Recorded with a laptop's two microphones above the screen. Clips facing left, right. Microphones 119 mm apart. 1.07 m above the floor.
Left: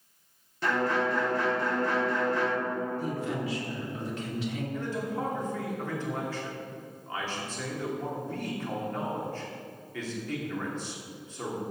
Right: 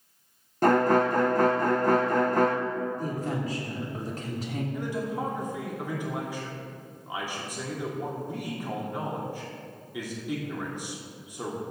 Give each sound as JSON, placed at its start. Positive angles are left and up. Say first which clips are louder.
{"t": 0.6, "sound": "a violin", "louder": "right 7 dB", "side_deg": -45, "distance_m": 0.6}
{"t": 3.0, "sound": "a woman speaking", "louder": "right 1 dB", "side_deg": -40, "distance_m": 3.0}
{"t": 4.7, "sound": "a man speaking", "louder": "right 3 dB", "side_deg": -15, "distance_m": 2.5}